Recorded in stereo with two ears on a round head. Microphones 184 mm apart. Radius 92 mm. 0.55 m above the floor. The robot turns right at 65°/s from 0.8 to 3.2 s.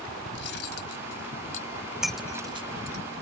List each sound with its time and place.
0.3 s cutlery clinking: 90° left; by 3.0 s 125° right
2.0 s breaking glass: centre (ahead or behind); by 2.4 s 25° left (ahead or behind)